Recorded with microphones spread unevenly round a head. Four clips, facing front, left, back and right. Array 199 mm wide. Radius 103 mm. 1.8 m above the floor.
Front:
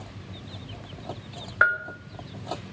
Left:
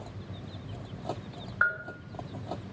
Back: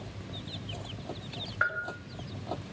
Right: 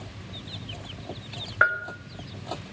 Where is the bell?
55° right, 2 m.